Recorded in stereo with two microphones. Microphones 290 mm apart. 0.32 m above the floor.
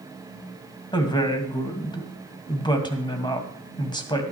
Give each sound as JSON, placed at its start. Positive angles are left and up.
{"t": 0.9, "sound": "a woman speaking", "side_deg": 15, "distance_m": 2.0}